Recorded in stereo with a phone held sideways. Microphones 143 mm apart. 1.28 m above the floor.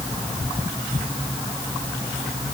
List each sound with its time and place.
Only background noise.